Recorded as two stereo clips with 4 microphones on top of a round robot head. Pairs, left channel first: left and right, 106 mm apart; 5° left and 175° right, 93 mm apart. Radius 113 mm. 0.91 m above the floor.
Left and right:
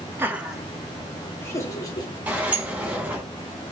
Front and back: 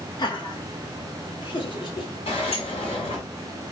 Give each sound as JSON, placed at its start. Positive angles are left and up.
{"t": 0.2, "sound": "laughter", "azimuth_deg": -25, "distance_m": 1.2}
{"t": 2.3, "sound": "a sliding door", "azimuth_deg": -15, "distance_m": 1.9}